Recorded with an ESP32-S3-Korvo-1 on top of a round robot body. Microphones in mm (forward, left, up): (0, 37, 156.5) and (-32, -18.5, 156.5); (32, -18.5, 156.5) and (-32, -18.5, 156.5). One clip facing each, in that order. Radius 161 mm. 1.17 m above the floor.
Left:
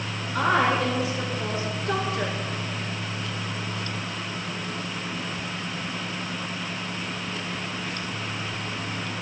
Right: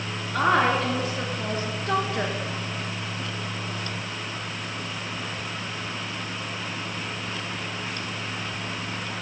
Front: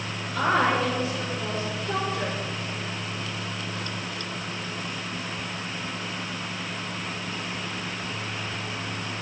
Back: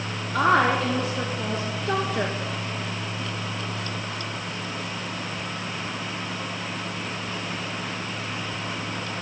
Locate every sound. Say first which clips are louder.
0.3 s a woman speaking: right 1 dB, back 3 dB; 170° right, 3 m